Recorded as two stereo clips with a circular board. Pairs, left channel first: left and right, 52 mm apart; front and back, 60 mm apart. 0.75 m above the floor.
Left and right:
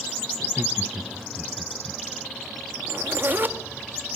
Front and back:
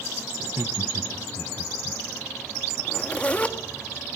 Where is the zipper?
60° right, 1.6 m.